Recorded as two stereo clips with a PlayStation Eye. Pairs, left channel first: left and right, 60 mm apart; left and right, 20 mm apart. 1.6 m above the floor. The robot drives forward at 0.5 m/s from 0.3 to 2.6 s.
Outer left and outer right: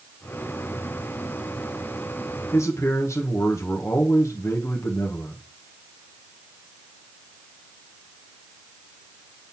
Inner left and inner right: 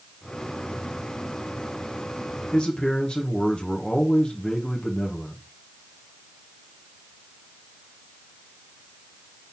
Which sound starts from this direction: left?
A man speaking, at 2.5 s.